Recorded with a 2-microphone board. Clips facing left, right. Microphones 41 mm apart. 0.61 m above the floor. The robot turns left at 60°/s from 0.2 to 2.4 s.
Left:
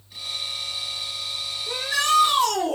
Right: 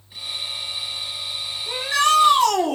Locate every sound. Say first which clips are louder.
1.7 s a shout: right 4 dB; 40° right, 2 m; by 2.8 s 85° right, 2 m